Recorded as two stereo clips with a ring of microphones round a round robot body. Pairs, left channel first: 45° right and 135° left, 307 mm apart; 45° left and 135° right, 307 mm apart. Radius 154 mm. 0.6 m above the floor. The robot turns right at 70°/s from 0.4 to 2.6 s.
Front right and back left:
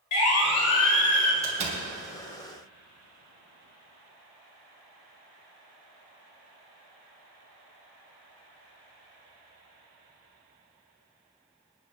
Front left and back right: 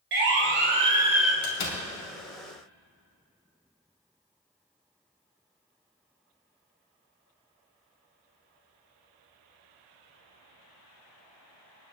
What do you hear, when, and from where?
0.1 s a siren: 80° right, 2 m; by 1.3 s 45° right, 1.7 m
1.4 s a door slam: 55° left, 3 m; by 1.8 s 85° left, 3 m